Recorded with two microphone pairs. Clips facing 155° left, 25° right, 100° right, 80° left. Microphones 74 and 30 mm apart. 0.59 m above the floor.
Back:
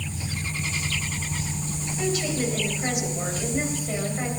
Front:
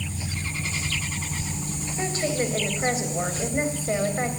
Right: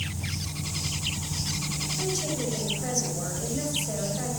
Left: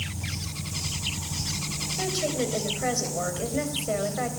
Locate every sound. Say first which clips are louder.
2.0 s a woman speaking: even, left 4 dB; 30° left, 3.5 m